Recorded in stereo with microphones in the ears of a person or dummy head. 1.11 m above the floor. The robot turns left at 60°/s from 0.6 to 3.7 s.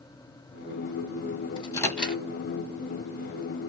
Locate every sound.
1.6 s a microwave: 30° left (ahead or behind), 0.9 m; by 2.2 s 10° right (ahead or behind), 0.9 m